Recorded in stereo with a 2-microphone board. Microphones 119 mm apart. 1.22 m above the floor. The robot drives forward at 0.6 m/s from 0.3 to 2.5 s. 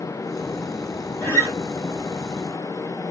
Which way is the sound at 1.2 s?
20° left (ahead or behind).